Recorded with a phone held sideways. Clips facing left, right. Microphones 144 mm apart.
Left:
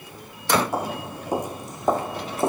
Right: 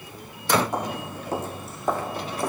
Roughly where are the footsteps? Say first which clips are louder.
Left 1 dB; centre.